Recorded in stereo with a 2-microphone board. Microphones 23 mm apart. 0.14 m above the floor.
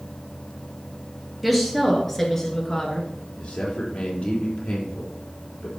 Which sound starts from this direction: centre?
A woman speaking, at 1.4 s.